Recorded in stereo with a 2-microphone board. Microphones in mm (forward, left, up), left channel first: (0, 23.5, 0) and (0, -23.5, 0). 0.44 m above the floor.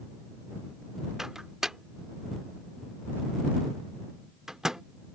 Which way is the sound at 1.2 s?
10° right (ahead or behind).